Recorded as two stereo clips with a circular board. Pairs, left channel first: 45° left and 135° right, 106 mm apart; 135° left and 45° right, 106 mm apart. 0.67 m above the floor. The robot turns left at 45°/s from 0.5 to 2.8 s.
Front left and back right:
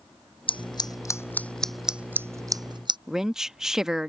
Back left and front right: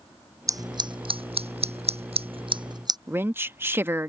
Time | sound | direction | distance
0.5 | scissors | 10° left | ?
3.1 | a woman speaking | 55° right | ?